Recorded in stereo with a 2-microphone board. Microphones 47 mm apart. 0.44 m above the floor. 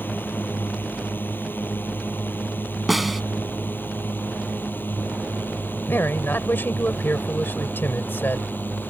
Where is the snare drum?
5° right (ahead or behind).